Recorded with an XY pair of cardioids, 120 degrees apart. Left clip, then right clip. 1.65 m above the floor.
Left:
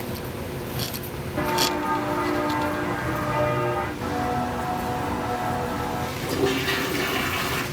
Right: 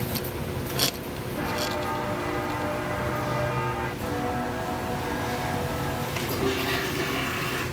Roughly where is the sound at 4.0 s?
Ahead left.